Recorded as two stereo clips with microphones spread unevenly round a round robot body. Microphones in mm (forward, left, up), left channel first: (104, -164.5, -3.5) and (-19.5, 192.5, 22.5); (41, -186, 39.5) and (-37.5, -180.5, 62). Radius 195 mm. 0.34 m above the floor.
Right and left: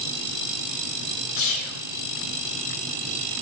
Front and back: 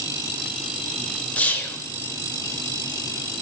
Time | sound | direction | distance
1.4 | whispering | 55° right | 1.1 m